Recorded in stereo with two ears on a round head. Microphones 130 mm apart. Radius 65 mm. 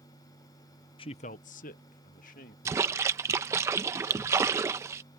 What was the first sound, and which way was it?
A man speaking, 35° left (ahead or behind).